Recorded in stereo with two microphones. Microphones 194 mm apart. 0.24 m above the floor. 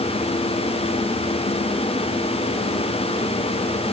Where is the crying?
No crying in this recording.